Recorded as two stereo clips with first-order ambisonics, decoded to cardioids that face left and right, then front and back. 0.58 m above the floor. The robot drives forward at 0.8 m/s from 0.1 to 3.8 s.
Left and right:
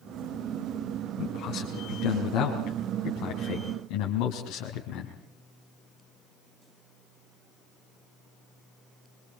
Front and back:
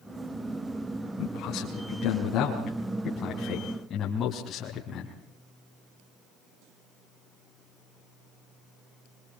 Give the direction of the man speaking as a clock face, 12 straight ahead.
11 o'clock.